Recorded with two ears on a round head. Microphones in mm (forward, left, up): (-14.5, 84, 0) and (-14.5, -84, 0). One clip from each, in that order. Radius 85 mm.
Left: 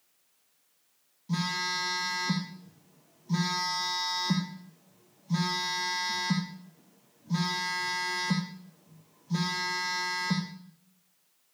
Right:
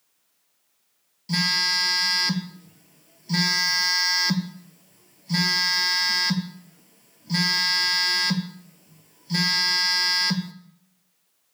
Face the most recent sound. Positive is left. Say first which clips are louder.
# right 9 dB
turn(degrees=-75)  # may be behind; listen again after turning